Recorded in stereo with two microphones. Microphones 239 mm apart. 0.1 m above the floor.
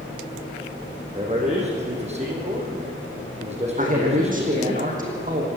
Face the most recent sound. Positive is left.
turn(degrees=-35)  # may be behind; listen again after turning